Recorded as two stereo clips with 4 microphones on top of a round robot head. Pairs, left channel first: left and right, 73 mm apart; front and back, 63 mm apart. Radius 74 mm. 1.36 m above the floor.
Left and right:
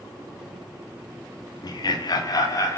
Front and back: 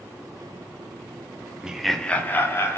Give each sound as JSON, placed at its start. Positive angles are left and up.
{"t": 1.6, "sound": "laughter", "azimuth_deg": 105, "distance_m": 0.6}